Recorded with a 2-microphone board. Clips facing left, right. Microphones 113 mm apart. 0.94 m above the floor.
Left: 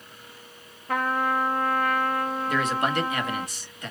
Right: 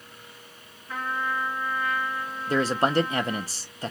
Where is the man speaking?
35° right (ahead or behind), 0.9 m.